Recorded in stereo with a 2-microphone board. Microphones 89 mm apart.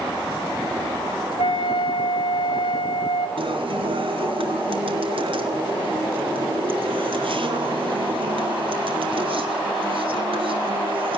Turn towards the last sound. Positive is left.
turn(degrees=-65)  # may be behind; listen again after turning